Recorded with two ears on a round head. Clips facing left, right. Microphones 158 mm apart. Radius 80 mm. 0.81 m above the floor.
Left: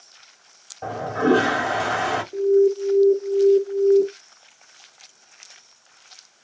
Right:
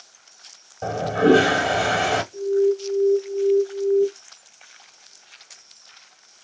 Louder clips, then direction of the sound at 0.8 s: Right 3 dB; 40° right (ahead or behind).